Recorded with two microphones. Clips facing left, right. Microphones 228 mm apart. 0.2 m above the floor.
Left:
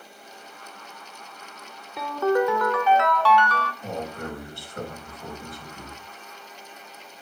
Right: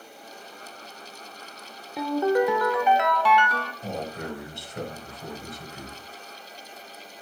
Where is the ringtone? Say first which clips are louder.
Even; 15° right (ahead or behind), 0.8 m.